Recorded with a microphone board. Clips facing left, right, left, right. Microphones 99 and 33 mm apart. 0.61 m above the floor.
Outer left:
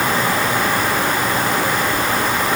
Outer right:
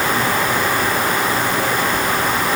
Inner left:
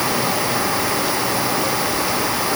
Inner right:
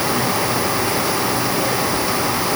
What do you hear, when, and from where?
Only background noise.